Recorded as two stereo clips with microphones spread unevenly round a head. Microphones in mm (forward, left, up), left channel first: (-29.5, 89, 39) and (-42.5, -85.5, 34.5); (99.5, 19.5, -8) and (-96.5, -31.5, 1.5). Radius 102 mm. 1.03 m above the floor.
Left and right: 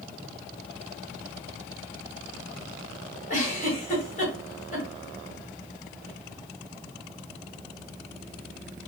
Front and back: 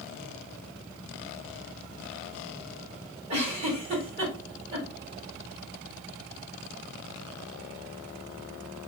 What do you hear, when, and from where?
3.3 s a giggle: 130° left, 2.0 m